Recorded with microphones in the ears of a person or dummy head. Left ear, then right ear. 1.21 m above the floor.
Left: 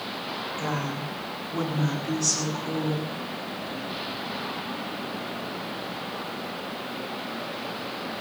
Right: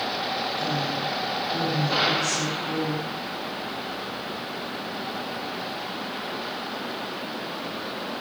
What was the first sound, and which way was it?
A woman speaking, 50° left (ahead or behind).